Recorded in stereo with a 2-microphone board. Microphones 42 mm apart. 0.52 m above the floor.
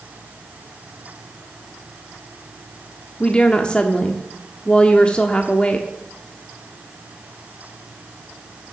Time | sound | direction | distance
3.2 | a woman speaking | 25° left (ahead or behind) | 1.1 m